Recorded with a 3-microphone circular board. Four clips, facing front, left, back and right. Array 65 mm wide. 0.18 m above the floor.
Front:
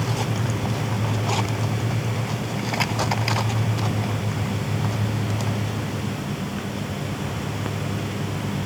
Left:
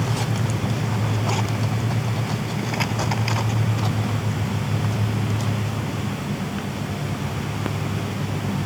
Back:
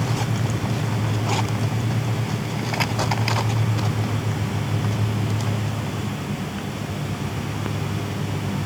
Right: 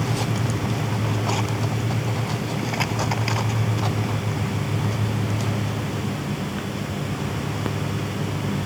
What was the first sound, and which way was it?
Only background noise.